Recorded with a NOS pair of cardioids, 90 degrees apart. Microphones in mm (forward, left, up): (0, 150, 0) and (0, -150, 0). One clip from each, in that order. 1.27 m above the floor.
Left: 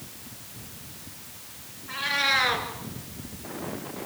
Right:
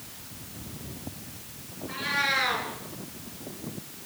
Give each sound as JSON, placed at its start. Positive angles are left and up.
{"t": 1.9, "sound": "a cat meowing", "azimuth_deg": 20, "distance_m": 4.0}